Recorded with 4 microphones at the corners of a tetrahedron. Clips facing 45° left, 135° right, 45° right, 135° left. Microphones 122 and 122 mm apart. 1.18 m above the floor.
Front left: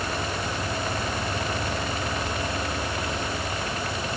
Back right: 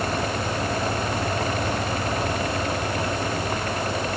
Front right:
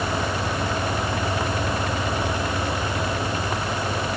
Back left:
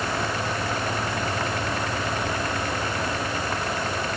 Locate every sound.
Only background noise.